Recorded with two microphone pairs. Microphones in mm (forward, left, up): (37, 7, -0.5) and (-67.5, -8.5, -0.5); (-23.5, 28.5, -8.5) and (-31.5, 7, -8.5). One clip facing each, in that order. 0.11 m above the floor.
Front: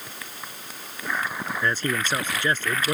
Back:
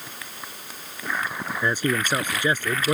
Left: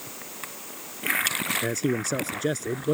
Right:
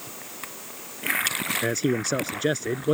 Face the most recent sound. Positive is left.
turn(degrees=-115)